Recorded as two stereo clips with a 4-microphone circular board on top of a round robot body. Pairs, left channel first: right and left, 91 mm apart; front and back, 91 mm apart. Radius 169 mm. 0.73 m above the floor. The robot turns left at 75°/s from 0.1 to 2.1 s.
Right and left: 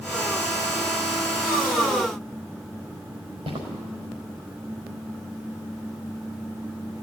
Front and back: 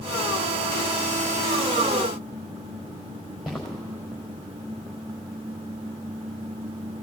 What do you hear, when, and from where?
3.5 s footsteps: 90° left, 5 m